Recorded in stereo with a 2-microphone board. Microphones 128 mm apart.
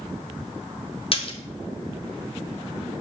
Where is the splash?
45° left (ahead or behind), 1.0 m.